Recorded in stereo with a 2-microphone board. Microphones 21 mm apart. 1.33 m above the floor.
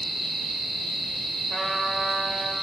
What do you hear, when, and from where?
1.5 s a trumpet: 20° right (ahead or behind), 5.5 m